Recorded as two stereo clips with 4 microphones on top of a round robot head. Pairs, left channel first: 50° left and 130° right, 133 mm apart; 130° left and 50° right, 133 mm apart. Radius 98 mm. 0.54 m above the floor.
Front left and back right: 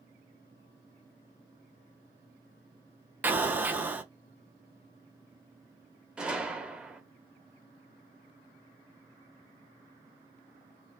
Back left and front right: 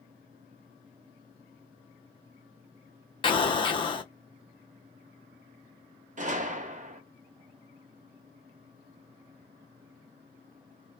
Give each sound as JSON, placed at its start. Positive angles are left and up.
{"t": 3.2, "sound": "an explosion", "azimuth_deg": 160, "distance_m": 0.8}
{"t": 6.2, "sound": "a gunshot", "azimuth_deg": -45, "distance_m": 0.7}